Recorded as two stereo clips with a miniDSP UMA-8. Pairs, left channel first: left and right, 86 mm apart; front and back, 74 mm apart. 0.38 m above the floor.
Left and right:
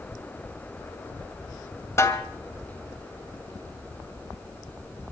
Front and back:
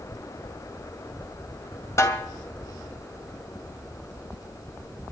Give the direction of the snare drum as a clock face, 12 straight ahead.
11 o'clock.